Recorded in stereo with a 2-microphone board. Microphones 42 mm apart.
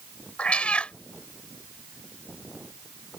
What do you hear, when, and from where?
0.4 s a cat meowing: 30° left (ahead or behind)